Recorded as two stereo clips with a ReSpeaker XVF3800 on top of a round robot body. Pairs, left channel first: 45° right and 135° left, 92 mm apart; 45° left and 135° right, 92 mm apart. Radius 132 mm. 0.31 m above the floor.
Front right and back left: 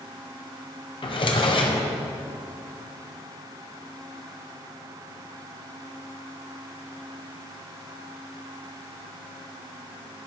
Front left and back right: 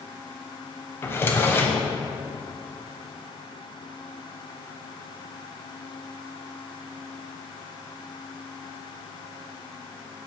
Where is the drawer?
20° right, 1.1 m.